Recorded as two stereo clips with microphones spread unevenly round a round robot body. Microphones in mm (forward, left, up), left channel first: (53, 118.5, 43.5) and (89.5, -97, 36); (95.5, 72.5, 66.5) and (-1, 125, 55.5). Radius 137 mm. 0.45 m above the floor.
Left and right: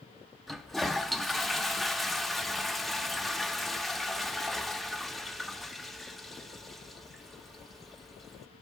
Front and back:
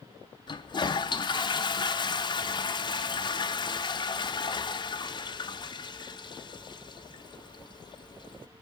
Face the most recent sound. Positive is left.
turn(degrees=10)